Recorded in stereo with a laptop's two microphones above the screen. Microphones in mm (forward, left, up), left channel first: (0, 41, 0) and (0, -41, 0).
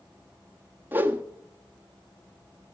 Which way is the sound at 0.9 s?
25° right (ahead or behind).